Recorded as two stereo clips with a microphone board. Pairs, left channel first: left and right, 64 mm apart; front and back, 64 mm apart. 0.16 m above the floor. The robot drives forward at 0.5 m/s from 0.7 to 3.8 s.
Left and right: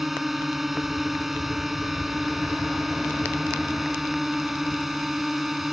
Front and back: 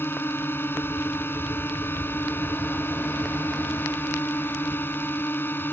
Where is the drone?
5° right.